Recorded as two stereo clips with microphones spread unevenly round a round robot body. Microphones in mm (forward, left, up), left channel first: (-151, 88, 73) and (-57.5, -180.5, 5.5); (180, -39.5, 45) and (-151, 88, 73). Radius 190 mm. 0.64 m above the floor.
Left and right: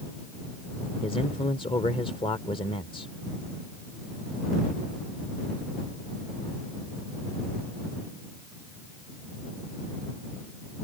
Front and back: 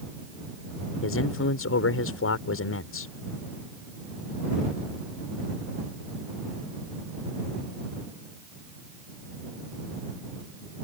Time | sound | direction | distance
1.0 | a man speaking | 30° left | ?